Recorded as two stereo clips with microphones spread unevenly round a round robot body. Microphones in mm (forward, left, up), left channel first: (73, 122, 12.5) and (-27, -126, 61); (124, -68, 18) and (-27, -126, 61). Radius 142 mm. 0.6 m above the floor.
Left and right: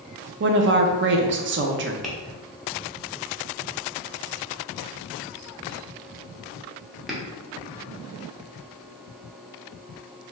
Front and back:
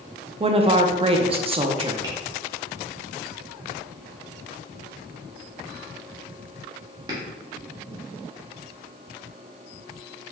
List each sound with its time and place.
0.4 s a woman speaking: 105° right, 0.6 m
2.0 s tapping: 130° left, 1.1 m